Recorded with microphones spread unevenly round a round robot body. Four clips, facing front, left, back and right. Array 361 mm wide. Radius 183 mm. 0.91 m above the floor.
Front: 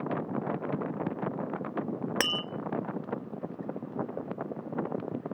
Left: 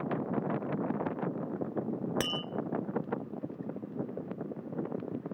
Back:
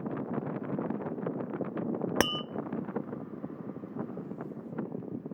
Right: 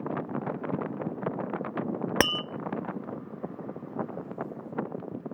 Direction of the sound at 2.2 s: 90° right.